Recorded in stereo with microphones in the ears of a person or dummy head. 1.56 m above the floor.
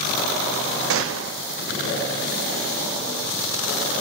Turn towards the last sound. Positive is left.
turn(degrees=-70)  # may be behind; listen again after turning